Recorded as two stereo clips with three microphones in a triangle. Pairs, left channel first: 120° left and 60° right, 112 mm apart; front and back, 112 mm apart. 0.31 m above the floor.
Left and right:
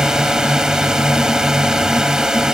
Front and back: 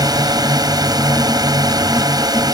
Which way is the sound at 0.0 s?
145° right.